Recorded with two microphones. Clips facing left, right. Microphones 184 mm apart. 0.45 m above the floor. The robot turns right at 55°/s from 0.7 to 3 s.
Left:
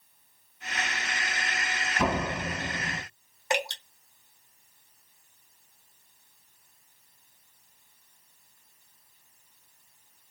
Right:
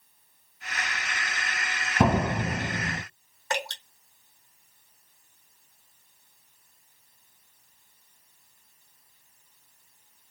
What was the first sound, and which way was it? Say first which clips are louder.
A door slam: right 5 dB; 105° right.